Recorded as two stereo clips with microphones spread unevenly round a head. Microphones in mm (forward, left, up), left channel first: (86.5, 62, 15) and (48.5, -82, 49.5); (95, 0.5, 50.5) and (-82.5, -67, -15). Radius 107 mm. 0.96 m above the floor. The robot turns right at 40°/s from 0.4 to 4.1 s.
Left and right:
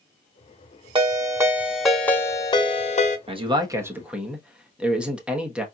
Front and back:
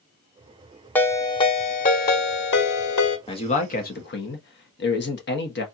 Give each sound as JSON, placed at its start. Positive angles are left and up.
{"t": 0.9, "sound": "a ringtone", "azimuth_deg": -55, "distance_m": 1.1}
{"t": 3.3, "sound": "a man speaking", "azimuth_deg": -50, "distance_m": 1.3}